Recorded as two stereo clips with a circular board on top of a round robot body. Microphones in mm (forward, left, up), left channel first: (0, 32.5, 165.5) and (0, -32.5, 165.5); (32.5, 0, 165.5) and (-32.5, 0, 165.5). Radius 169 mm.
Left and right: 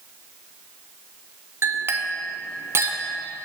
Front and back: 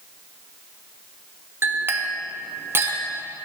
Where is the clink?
135° right, 1.0 m.